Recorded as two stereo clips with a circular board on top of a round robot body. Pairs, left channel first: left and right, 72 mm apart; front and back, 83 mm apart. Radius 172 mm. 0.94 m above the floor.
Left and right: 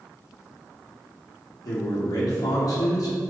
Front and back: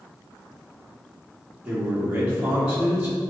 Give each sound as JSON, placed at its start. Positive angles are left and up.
{"t": 1.6, "sound": "a man speaking", "azimuth_deg": 100, "distance_m": 2.5}